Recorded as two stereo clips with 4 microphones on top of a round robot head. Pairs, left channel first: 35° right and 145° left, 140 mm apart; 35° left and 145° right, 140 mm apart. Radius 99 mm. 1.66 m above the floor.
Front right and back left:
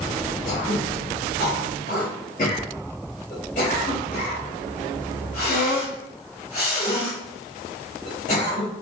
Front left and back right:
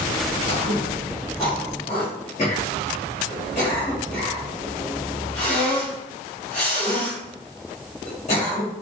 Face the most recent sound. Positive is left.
turn(degrees=-5)